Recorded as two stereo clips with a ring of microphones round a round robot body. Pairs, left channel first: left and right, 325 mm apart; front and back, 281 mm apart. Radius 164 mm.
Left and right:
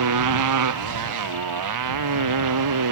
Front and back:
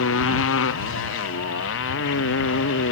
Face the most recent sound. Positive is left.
turn(degrees=-55)